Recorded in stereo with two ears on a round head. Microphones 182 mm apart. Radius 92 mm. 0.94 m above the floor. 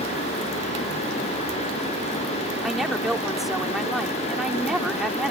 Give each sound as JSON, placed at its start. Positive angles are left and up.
{"t": 2.6, "sound": "a woman speaking", "side_deg": 0}